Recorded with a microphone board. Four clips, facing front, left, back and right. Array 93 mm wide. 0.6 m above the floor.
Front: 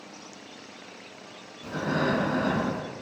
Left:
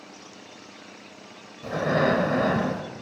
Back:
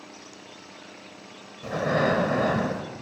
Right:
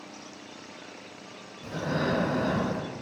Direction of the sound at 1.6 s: 130° left.